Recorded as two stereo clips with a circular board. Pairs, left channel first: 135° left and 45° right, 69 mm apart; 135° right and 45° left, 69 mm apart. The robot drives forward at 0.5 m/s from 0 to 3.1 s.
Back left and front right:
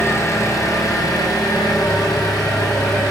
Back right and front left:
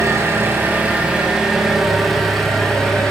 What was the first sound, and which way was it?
An engine running, 90° left.